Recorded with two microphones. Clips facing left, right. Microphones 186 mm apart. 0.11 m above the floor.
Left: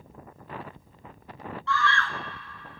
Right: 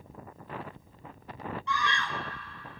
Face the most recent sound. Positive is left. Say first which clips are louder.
# left 6 dB
turn(degrees=-15)  # may be behind; listen again after turning